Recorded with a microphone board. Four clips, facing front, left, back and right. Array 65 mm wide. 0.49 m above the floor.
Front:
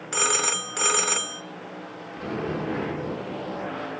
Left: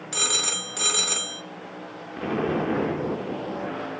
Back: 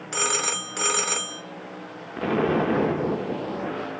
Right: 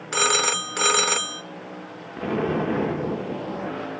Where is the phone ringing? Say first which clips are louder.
Right 9 dB, front 1 dB; 85° right, 0.5 m.